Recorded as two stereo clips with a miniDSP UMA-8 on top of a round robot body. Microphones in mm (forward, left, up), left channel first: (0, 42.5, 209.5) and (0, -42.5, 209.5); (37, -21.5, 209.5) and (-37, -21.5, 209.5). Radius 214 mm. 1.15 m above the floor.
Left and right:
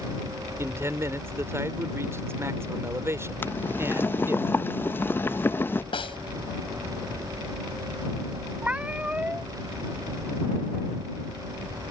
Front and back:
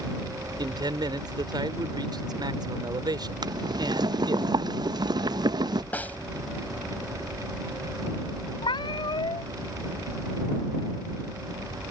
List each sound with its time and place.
0.6 s a man speaking: 150° right
3.4 s boiling: 155° left
5.9 s a snare drum: 70° left
8.6 s a cat meowing: 15° right